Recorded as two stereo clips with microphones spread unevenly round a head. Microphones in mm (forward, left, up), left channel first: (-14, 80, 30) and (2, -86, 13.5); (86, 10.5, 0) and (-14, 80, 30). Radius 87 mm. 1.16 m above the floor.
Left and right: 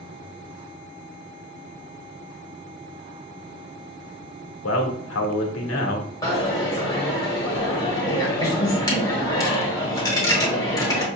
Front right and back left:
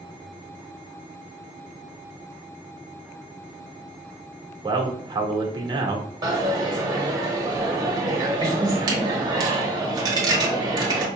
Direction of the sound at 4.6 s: 90° left.